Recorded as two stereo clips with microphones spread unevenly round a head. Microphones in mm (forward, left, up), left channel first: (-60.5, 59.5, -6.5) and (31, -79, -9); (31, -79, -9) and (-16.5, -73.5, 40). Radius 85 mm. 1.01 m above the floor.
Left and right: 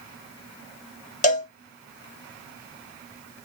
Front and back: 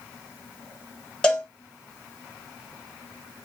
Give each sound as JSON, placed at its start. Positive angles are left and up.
{"t": 1.2, "sound": "a cowbell", "azimuth_deg": 130, "distance_m": 1.0}